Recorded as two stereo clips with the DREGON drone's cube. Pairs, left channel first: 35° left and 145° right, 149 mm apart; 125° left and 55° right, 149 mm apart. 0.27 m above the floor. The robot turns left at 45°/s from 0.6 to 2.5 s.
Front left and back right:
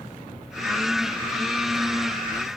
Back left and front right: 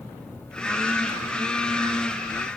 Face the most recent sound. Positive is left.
No sound to turn to.